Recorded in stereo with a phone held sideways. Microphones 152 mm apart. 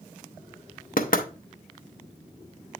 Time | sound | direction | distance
1.0 | knocking | 70° left (ahead or behind) | 0.7 m